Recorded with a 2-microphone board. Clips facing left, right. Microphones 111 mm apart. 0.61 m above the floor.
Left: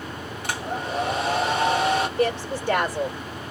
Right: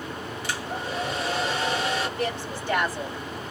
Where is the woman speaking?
65° left (ahead or behind), 1.5 m.